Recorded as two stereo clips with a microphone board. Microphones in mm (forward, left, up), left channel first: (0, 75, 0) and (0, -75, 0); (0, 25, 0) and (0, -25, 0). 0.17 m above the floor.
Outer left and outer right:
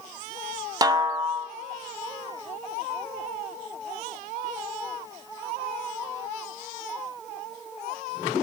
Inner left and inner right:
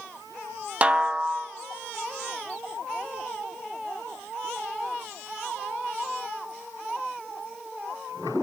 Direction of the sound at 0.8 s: 25° right (ahead or behind).